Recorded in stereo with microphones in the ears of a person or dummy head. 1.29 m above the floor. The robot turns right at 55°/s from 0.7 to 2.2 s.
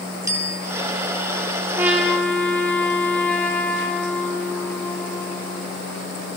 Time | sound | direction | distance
0.3 | a bicycle bell | 20° right (ahead or behind) | 2 m
1.8 | a trumpet | 15° right (ahead or behind) | 3 m